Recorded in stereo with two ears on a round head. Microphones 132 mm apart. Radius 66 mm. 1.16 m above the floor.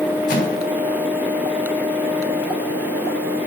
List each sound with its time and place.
0.3 s a microwave: 60° left (ahead or behind), 6.5 m